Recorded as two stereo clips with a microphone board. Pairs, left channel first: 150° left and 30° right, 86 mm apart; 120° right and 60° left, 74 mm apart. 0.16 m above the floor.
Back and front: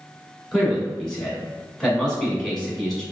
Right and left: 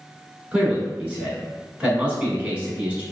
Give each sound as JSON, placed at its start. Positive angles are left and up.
{"t": 0.5, "sound": "a man speaking", "azimuth_deg": 75, "distance_m": 1.0}